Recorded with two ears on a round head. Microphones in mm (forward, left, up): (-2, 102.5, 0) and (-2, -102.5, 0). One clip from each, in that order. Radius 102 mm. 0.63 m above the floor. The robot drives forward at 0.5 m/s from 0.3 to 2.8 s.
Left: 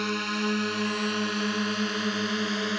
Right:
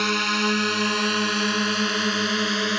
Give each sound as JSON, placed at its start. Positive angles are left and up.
{"t": 0.0, "sound": "a drone", "side_deg": -30}